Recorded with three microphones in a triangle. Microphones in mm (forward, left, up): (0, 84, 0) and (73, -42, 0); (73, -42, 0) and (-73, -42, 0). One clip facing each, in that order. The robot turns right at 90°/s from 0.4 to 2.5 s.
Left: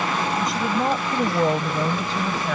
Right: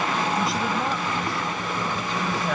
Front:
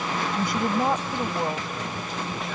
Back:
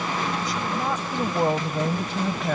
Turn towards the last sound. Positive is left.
turn(degrees=-150)